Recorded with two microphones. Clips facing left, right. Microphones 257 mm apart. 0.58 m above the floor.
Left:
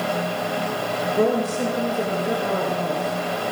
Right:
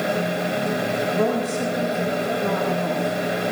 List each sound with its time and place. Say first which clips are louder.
1.1 s a woman speaking: left 4 dB; 65° left (ahead or behind), 3.5 m; by 3.5 s 75° left (ahead or behind), 5 m